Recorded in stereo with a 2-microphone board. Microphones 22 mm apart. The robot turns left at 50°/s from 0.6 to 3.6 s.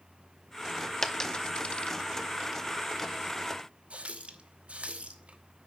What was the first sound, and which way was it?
A dropped coin, 20° left (ahead or behind).